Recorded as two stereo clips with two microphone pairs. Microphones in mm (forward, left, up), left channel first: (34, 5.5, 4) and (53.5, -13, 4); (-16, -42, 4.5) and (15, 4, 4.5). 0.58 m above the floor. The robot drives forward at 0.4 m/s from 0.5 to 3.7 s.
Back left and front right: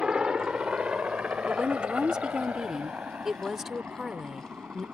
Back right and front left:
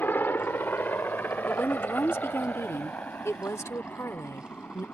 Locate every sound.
0.0 s a helicopter: 90° right; by 5.0 s 65° right
1.5 s a woman speaking: 75° right; by 4.8 s 115° right